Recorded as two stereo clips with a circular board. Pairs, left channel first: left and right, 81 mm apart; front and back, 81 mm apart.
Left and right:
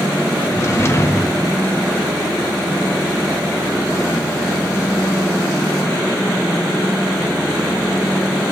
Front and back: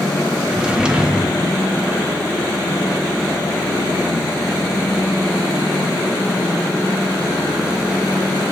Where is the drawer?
110° left, 0.8 m.